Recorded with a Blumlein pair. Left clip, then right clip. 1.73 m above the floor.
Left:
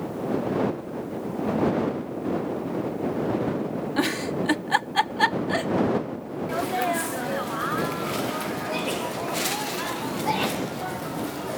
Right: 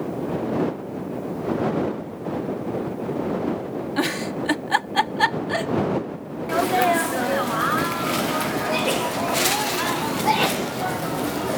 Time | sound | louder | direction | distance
4.0 | a giggle | right 1 dB | 5° right | ?
6.5 | a sneeze | right 7 dB | 20° right | ?